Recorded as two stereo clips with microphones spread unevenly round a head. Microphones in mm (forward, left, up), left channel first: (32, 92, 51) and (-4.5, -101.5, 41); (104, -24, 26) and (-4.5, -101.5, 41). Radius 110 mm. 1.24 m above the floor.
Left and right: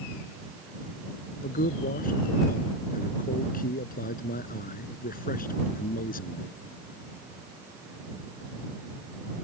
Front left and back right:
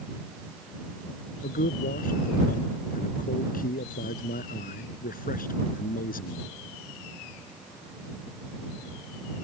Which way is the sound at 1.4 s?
30° left.